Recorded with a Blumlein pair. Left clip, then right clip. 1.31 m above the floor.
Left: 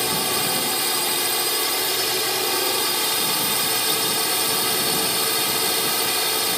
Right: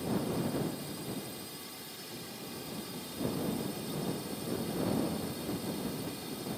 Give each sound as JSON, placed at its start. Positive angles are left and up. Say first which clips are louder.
{"t": 0.0, "sound": "a drone", "louder": "left 13 dB", "azimuth_deg": 40}